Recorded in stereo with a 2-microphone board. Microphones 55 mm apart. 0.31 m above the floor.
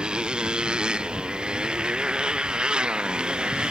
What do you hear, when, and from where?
0.0 s a motorcycle: 15° right (ahead or behind)